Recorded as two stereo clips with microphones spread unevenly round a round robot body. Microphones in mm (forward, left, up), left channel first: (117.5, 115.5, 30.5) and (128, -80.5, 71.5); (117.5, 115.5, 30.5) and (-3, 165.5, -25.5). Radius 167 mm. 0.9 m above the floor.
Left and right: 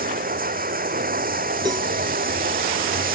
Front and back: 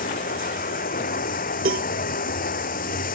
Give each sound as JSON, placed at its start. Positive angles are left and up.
{"t": 0.0, "sound": "running water", "azimuth_deg": -45}
{"t": 1.6, "sound": "a cowbell", "azimuth_deg": -165}